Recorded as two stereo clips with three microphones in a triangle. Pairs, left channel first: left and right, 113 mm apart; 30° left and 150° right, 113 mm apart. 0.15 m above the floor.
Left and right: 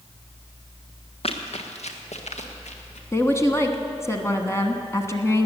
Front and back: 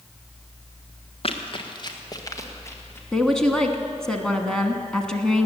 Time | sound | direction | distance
1.2 | running footsteps | 60° left | 1.7 m
3.1 | a woman speaking | 105° left | 1.2 m